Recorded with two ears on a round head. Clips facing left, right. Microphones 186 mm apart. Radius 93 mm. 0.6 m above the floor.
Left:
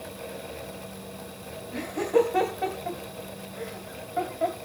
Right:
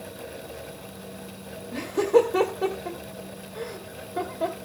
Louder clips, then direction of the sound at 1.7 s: Right 4 dB; 50° right (ahead or behind).